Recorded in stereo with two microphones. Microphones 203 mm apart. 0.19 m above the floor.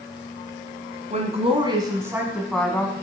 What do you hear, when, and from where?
1.1 s a woman speaking: 35° right (ahead or behind), 1.5 m; by 2.9 s 15° left (ahead or behind), 1.3 m